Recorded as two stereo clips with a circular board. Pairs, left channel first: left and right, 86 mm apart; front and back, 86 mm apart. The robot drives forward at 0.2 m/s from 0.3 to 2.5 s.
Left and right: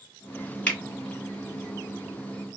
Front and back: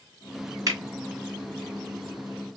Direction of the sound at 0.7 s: 155° left.